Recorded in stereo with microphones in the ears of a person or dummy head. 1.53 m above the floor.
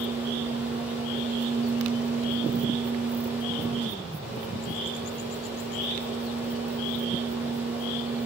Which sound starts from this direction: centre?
A fan, at 0.0 s.